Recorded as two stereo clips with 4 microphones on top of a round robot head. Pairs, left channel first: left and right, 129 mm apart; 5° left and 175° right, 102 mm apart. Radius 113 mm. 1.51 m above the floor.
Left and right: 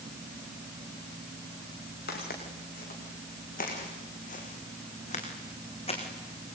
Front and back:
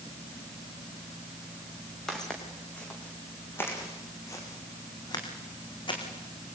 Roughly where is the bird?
No bird in this recording.